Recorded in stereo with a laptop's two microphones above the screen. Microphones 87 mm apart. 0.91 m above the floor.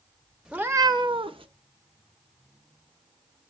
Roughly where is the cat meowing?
Centre.